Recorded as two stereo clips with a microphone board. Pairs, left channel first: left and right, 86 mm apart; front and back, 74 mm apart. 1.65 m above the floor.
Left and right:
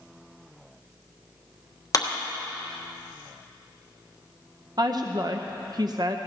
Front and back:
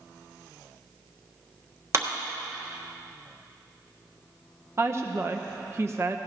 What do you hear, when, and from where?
1.9 s a clap: 135° left, 1.3 m
4.8 s a woman speaking: 125° right, 0.7 m